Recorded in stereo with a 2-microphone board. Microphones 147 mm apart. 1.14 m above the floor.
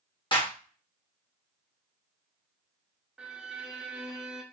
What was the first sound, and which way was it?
A clap, 35° left (ahead or behind).